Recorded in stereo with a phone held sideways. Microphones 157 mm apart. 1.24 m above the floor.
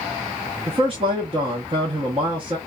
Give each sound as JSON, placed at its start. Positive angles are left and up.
{"t": 0.7, "sound": "a man speaking", "side_deg": -40, "distance_m": 0.7}